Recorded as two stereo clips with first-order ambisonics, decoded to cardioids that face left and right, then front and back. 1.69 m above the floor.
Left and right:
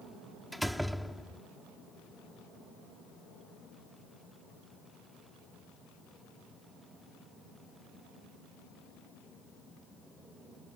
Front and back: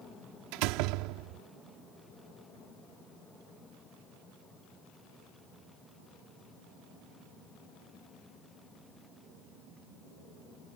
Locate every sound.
0.5 s a door slam: 175° right